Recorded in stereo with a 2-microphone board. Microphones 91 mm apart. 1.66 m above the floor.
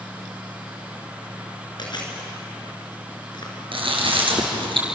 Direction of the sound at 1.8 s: 55° left (ahead or behind).